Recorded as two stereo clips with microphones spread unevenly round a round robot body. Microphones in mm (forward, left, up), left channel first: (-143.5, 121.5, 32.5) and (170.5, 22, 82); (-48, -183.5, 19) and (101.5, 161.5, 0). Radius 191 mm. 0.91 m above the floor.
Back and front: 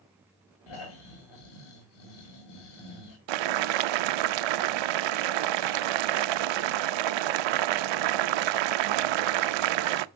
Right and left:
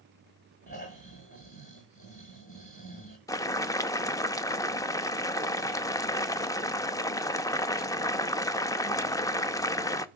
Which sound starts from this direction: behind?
Snoring, at 0.7 s.